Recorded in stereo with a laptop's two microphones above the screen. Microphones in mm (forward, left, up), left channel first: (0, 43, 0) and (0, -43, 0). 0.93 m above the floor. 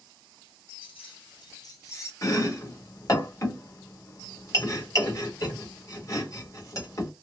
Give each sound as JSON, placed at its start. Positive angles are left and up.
{"t": 0.8, "sound": "keys jangling", "side_deg": 80, "distance_m": 0.7}
{"t": 2.2, "sound": "chopping", "side_deg": 35, "distance_m": 1.3}